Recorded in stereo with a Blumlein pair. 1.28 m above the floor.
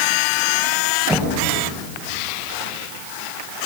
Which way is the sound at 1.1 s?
5° left.